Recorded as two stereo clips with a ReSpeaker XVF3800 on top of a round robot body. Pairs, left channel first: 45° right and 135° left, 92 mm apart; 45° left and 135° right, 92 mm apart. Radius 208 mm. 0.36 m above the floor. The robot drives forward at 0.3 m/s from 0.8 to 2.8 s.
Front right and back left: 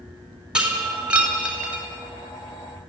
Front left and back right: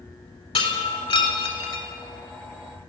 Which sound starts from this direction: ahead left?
Breaking glass, at 0.6 s.